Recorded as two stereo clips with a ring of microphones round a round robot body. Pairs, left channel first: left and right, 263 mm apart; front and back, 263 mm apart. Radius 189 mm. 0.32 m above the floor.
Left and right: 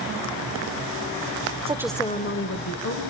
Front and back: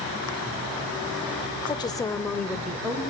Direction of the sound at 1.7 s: 55° right.